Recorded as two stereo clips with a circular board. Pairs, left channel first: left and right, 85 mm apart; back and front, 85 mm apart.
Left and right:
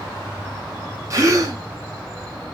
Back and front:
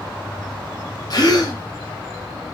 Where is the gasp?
140° right, 0.7 m.